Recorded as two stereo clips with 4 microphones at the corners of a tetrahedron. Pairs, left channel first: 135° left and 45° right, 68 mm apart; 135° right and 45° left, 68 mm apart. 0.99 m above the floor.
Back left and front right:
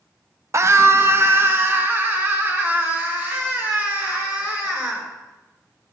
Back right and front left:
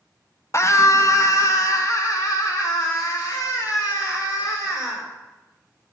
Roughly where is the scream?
Right.